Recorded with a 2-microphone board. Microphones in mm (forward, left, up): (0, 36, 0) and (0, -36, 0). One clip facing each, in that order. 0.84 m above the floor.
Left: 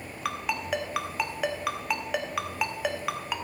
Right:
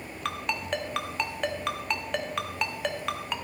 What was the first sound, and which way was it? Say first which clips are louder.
A ringtone: left 1 dB; 5° left (ahead or behind).